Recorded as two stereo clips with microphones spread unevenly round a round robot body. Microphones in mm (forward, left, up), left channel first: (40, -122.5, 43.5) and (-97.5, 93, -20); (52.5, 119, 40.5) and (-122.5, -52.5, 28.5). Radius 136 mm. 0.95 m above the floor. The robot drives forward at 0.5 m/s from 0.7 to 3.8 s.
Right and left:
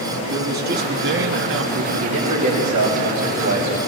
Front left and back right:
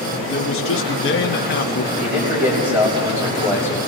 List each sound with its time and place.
0.3 s a man speaking: 75° left, 1.6 m; by 1.8 s 100° left, 1.6 m
1.9 s a man speaking: 150° left, 5 m; by 3.8 s 155° left, 6 m